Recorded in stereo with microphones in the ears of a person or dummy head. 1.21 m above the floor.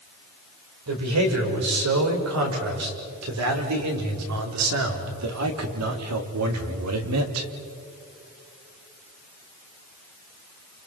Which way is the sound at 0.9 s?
85° right.